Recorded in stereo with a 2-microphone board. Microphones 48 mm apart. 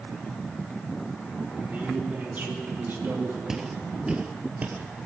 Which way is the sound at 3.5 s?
10° right (ahead or behind).